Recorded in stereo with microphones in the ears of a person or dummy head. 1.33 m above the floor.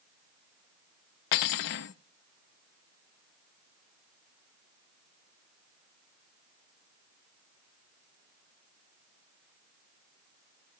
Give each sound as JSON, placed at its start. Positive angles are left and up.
{"t": 1.3, "sound": "cutlery clinking", "side_deg": 55, "distance_m": 0.8}